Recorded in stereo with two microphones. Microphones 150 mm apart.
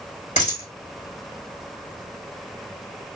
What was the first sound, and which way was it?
A dropped coin, 55° left (ahead or behind).